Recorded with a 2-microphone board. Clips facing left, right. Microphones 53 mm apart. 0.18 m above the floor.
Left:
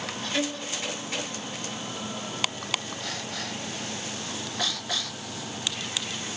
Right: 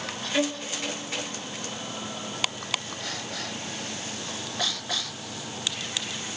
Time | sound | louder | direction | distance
0.3 | a violin | right 3 dB | 10° right (ahead or behind) | 0.6 m